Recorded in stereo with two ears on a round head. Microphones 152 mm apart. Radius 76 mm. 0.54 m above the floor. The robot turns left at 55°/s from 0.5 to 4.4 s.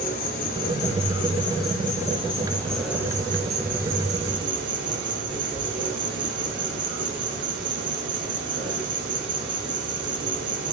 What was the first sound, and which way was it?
An insect, 125° left.